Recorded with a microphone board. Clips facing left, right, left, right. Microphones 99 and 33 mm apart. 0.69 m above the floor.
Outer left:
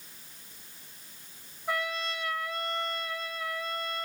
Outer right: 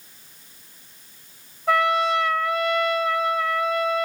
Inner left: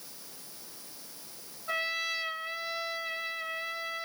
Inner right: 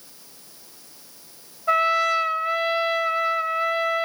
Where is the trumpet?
90° right, 0.8 m.